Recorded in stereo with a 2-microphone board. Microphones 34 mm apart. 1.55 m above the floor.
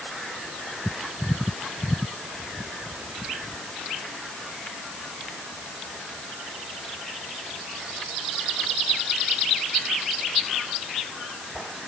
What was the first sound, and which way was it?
Only background noise.